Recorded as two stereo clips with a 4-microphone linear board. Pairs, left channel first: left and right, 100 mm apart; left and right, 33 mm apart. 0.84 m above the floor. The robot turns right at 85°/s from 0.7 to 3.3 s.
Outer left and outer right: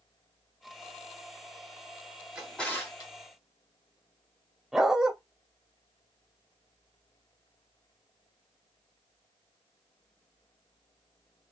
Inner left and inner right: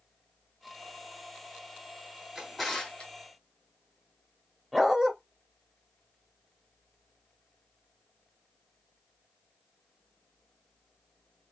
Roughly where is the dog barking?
Centre.